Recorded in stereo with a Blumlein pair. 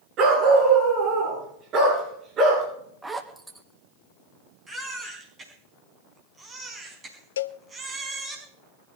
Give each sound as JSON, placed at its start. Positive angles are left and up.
{"t": 0.2, "sound": "a dog barking", "azimuth_deg": -35, "distance_m": 7.0}
{"t": 3.0, "sound": "a zipper", "azimuth_deg": -5, "distance_m": 1.6}
{"t": 4.7, "sound": "a baby crying", "azimuth_deg": -15, "distance_m": 4.5}
{"t": 7.4, "sound": "a cowbell", "azimuth_deg": 65, "distance_m": 0.6}